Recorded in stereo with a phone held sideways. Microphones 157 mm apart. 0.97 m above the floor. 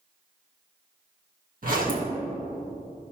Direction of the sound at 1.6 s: 65° right (ahead or behind).